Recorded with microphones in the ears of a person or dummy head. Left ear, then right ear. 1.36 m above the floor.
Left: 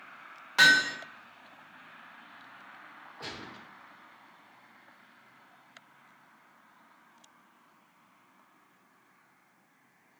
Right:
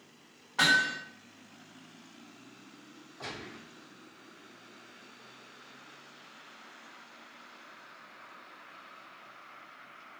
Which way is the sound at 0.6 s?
75° left (ahead or behind).